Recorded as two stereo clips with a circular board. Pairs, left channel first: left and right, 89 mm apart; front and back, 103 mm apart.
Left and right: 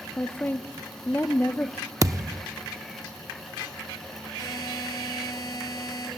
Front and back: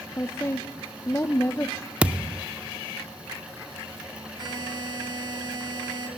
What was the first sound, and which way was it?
A woman speaking, 40° left.